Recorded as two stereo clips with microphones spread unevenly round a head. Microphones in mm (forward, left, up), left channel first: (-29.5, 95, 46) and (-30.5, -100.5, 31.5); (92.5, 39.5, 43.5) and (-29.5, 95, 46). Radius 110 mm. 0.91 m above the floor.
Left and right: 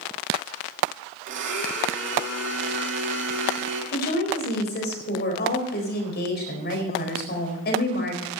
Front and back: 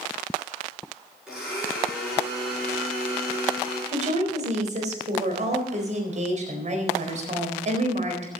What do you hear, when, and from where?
1.3 s a blender: 120° right, 6 m
3.9 s a woman speaking: 125° left, 4 m